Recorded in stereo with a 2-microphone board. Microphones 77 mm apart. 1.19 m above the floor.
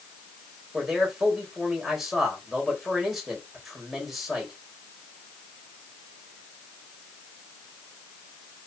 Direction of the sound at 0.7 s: 5° right (ahead or behind).